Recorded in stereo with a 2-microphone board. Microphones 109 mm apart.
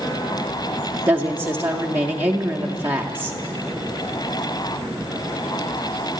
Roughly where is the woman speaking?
Centre.